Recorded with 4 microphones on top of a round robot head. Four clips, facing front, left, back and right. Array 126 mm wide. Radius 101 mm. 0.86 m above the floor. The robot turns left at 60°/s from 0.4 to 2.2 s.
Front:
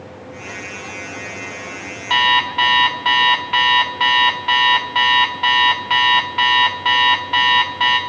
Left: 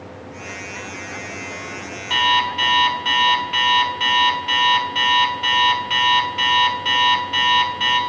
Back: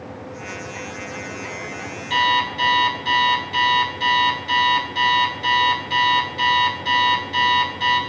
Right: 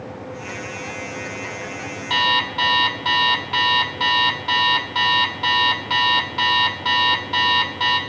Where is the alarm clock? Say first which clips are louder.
Left 2 dB, front 3 dB; 15° right, 1.2 m; by 8.0 s 20° right, 1.2 m.